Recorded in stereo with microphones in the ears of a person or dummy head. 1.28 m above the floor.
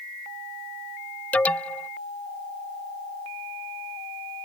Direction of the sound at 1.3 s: 5° left (ahead or behind).